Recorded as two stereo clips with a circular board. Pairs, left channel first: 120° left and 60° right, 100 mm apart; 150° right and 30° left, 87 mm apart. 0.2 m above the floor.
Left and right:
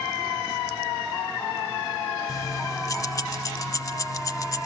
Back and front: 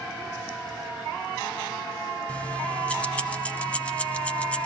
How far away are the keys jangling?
About 0.8 m.